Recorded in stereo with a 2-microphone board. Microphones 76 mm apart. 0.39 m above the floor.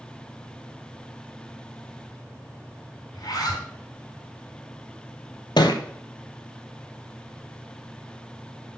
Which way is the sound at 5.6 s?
75° left (ahead or behind).